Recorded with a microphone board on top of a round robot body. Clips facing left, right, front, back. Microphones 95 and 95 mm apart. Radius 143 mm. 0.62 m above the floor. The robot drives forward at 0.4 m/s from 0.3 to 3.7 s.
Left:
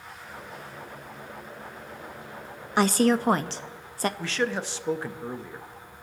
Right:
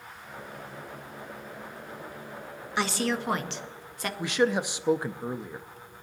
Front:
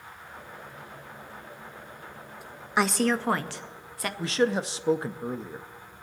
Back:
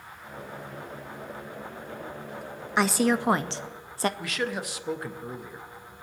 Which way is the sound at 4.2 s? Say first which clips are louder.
Right 3 dB, front 6 dB; 25° right.